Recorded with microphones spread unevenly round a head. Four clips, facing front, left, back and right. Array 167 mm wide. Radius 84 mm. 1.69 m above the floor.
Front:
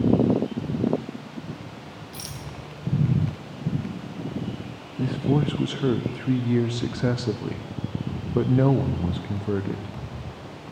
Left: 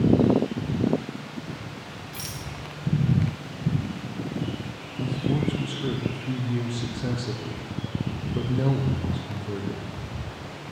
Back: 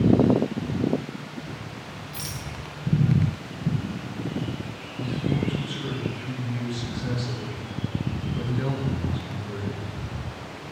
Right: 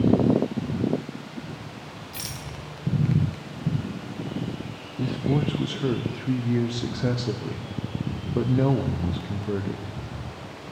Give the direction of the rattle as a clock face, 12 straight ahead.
2 o'clock.